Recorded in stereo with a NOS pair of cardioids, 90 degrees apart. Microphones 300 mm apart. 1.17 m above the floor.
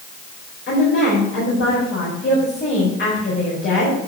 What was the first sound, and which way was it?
A woman speaking, 35° left.